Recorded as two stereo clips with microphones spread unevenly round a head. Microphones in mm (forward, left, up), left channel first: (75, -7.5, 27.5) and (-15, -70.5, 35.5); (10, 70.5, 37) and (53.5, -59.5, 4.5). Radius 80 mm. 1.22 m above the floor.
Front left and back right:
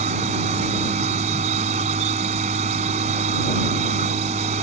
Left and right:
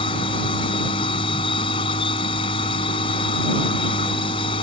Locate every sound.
0.0 s a machine running: 170° left